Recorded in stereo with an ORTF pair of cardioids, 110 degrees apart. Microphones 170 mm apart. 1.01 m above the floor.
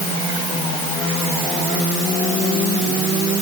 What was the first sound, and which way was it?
Only background noise.